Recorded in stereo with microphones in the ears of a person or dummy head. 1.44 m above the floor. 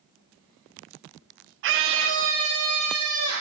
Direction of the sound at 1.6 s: 60° right (ahead or behind).